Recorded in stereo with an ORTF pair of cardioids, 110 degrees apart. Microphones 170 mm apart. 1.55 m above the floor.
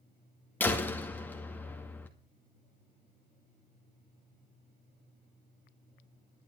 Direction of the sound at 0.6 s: 10° left.